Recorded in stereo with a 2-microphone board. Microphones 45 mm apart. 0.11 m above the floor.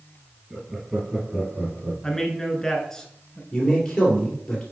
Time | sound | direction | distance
0.5 | laughter | 15° right (ahead or behind) | 1.6 m
2.0 | a man speaking | 15° left (ahead or behind) | 1.1 m
3.5 | a man speaking | 10° left (ahead or behind) | 2.5 m